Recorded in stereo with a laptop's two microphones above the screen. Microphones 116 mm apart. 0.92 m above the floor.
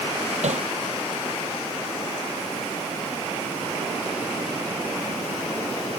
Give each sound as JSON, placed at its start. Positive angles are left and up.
{"t": 0.4, "sound": "hammering", "side_deg": -80}